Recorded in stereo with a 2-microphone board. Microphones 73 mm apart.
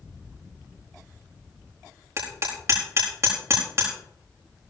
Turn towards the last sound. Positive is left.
turn(degrees=-40)  # may be behind; listen again after turning